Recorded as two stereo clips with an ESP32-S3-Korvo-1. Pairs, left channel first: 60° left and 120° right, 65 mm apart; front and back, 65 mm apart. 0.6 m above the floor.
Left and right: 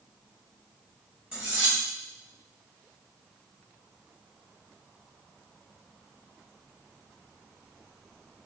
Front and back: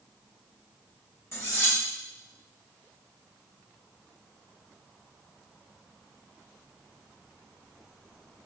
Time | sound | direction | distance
1.3 | cutlery clinking | 45° right | 2.0 m